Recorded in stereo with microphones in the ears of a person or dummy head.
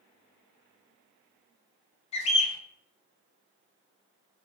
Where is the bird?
35° left (ahead or behind), 0.6 m.